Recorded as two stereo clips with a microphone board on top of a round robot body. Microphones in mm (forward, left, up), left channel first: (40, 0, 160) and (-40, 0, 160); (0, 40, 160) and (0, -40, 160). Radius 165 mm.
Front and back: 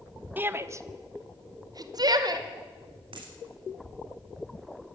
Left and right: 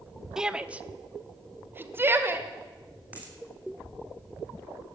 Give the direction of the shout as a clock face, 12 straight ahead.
5 o'clock.